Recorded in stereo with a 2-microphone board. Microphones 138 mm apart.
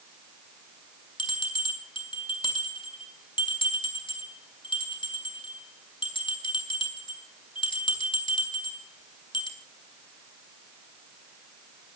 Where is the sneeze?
No sneeze in this recording.